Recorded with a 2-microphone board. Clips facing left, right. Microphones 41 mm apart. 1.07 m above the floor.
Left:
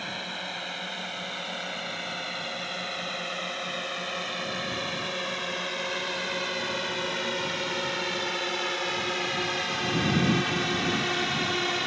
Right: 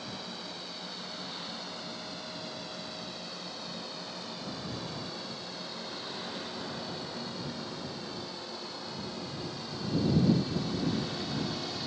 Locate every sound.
0.0 s a drone: 55° left (ahead or behind); by 11.9 s 60° left (ahead or behind)